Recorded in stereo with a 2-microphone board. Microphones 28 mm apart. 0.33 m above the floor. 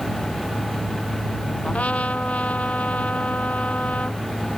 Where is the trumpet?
65° left (ahead or behind).